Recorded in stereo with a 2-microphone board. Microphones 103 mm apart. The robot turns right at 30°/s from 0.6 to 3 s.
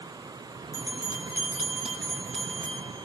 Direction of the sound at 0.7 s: 35° right (ahead or behind).